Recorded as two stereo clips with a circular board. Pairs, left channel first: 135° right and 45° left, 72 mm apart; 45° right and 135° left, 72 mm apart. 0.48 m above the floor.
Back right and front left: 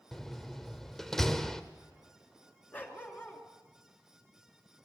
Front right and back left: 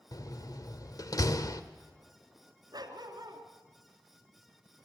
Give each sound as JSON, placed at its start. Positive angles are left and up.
{"t": 0.1, "sound": "a door slam", "azimuth_deg": -50, "distance_m": 1.2}
{"t": 2.7, "sound": "a dog barking", "azimuth_deg": 160, "distance_m": 2.5}